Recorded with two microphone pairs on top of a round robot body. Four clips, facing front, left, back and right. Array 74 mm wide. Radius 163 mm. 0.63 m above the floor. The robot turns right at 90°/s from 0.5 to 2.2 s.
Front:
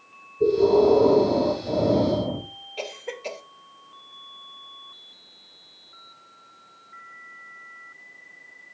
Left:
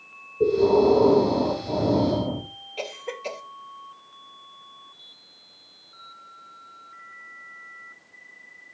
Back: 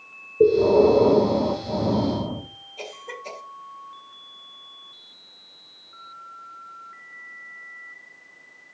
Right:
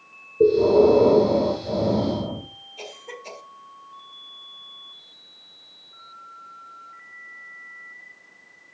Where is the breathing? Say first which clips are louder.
Right 3 dB, back 2 dB; 150° right, 4 m; by 2.5 s 5° left, 4 m.